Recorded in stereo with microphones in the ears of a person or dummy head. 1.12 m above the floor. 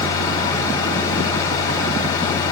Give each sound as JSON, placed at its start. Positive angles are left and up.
{"t": 0.0, "sound": "a fan", "side_deg": 20, "distance_m": 2.5}